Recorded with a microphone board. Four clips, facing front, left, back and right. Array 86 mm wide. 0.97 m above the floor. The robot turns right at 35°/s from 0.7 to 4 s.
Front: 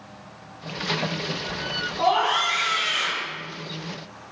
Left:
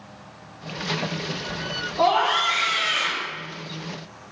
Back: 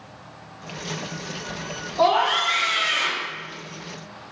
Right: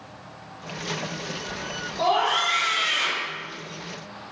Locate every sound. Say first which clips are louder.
2.0 s a scream: left 2 dB, back 2 dB; 145° left, 1.6 m; by 3.3 s 170° right, 1.6 m